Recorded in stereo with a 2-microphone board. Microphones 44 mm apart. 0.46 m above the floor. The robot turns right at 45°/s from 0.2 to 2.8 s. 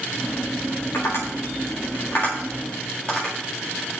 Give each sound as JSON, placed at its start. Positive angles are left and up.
{"t": 0.9, "sound": "tapping", "side_deg": 65, "distance_m": 8.0}